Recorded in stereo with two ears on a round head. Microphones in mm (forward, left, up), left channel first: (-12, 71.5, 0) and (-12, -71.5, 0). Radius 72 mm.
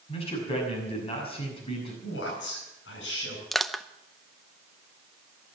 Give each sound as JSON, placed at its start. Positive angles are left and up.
{"t": 0.1, "sound": "a man speaking", "side_deg": 40, "distance_m": 6.5}
{"t": 2.0, "sound": "a man speaking", "side_deg": 80, "distance_m": 9.0}
{"t": 3.5, "sound": "crushing", "side_deg": 0, "distance_m": 0.6}